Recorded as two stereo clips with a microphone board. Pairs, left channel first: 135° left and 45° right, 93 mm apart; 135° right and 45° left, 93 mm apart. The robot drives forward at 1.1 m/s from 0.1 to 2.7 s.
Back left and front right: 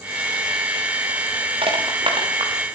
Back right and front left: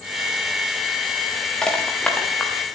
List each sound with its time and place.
1.6 s crushing: 55° right, 7 m; by 2.5 s 60° right, 6.5 m